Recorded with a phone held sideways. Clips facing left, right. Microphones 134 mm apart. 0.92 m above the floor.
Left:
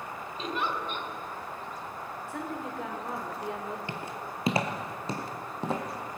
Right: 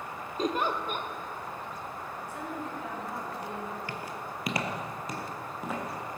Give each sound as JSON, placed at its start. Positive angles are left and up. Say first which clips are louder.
{"t": 0.4, "sound": "a giggle", "louder": "right 4 dB", "side_deg": -40, "distance_m": 0.8}
{"t": 2.3, "sound": "a woman speaking", "louder": "left 2 dB", "side_deg": 80, "distance_m": 2.5}
{"t": 3.9, "sound": "footsteps", "louder": "left 1 dB", "side_deg": 25, "distance_m": 1.0}